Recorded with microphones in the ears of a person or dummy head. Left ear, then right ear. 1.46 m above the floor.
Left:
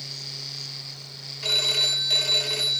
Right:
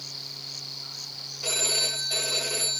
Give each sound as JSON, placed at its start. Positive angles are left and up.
{"t": 1.4, "sound": "a phone ringing", "side_deg": 70, "distance_m": 2.0}